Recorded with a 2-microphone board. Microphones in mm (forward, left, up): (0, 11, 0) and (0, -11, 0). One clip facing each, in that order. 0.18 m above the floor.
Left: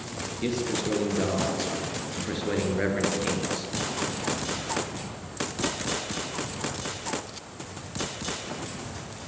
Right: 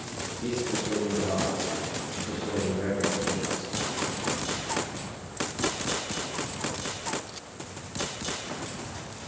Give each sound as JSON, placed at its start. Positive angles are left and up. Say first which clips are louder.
{"t": 0.4, "sound": "a man speaking", "louder": "left 2 dB", "side_deg": 65, "distance_m": 2.5}